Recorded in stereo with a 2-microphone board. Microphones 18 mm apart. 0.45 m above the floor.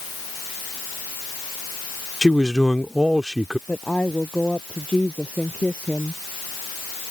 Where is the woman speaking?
80° left.